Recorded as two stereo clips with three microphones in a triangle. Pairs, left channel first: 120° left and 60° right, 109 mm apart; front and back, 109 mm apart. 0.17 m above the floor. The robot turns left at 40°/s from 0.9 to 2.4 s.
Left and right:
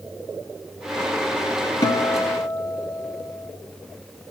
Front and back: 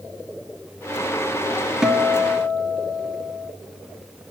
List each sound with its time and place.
1.8 s a guitar: 100° left, 0.5 m; by 3.5 s 75° left, 0.5 m